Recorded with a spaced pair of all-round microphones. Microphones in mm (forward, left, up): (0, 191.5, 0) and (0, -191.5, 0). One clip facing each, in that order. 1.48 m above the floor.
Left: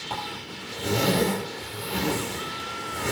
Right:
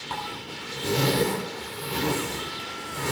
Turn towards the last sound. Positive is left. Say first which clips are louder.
# even
turn(degrees=-15)  # may be behind; listen again after turning